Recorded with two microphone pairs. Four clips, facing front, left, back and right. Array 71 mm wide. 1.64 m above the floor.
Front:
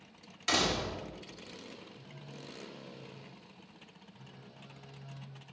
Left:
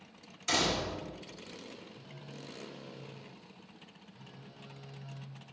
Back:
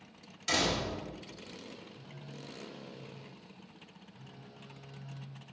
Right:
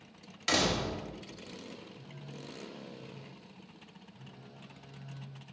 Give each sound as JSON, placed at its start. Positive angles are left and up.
{"t": 0.5, "sound": "a door slam", "azimuth_deg": -50, "distance_m": 1.8}
{"t": 1.9, "sound": "a phone buzzing", "azimuth_deg": 105, "distance_m": 1.1}